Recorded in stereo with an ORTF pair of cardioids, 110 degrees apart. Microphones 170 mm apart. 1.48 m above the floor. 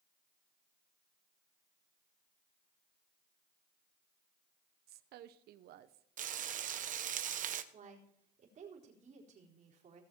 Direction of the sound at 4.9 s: 70° right.